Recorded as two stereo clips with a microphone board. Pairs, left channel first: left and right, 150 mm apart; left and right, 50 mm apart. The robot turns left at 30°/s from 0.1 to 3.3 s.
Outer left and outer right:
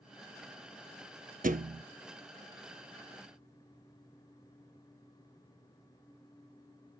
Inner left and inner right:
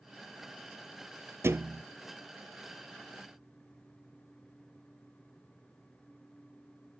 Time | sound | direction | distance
1.4 | a thud | 70° right (ahead or behind) | 0.5 m